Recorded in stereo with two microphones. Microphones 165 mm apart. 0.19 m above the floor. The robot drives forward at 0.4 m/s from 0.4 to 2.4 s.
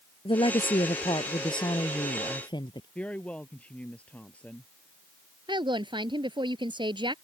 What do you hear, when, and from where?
0.2 s a woman speaking: 30° left (ahead or behind); by 2.9 s 25° left (ahead or behind)
3.0 s a woman speaking: 10° left (ahead or behind)
5.5 s a woman speaking: 30° right (ahead or behind)